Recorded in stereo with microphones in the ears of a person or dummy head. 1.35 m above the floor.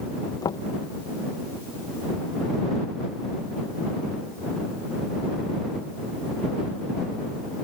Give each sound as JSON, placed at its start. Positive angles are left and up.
{"t": 0.4, "sound": "knocking", "side_deg": 20}